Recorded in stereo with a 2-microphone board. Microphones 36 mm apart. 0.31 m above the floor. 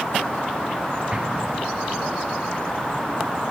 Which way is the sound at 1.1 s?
25° right (ahead or behind).